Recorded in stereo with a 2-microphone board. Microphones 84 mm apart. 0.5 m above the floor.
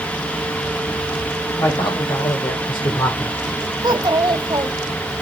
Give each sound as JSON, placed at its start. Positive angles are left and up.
{"t": 1.6, "sound": "a man speaking", "side_deg": 70, "distance_m": 2.5}
{"t": 3.8, "sound": "a child speaking", "side_deg": -55, "distance_m": 1.3}